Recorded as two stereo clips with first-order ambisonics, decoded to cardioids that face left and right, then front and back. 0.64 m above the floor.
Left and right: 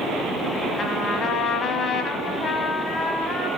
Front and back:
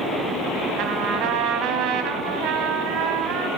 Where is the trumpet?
150° left, 1.2 m.